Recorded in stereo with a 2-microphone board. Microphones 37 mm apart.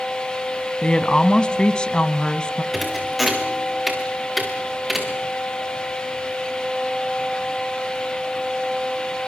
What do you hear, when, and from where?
0.8 s a woman speaking: 25° left (ahead or behind), 1.1 m
2.7 s a thud: centre (ahead or behind), 4.5 m